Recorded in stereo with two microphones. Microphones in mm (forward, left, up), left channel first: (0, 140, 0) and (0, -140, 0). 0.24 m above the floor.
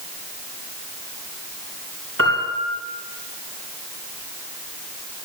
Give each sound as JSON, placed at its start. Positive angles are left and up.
{"t": 2.2, "sound": "a piano", "side_deg": -50, "distance_m": 7.0}